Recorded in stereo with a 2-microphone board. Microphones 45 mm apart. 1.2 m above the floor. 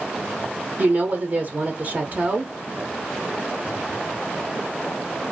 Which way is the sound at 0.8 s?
45° right (ahead or behind).